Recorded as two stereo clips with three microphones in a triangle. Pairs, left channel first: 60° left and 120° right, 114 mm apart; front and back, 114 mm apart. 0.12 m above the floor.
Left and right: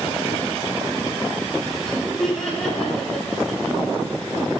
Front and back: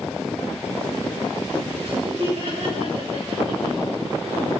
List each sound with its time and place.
1.8 s laughter: 145° left, 6 m